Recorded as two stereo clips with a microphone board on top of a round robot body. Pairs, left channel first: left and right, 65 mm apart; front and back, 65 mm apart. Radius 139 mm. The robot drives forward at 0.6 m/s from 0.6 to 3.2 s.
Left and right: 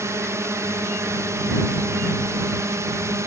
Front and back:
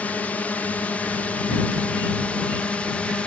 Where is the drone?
65° right; by 3.3 s 70° right.